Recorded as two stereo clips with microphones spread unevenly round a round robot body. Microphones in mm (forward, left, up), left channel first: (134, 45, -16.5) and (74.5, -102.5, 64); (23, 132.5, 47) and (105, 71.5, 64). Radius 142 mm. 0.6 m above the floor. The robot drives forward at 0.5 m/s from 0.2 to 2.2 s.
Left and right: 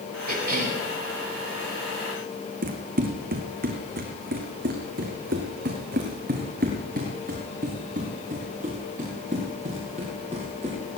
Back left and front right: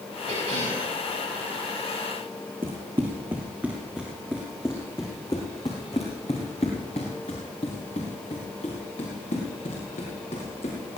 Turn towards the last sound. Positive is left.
turn(degrees=180)